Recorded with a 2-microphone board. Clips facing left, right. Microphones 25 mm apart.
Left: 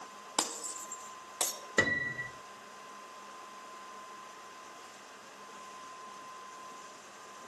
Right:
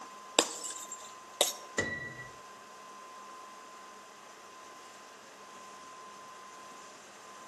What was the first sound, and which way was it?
Breaking glass, 80° right.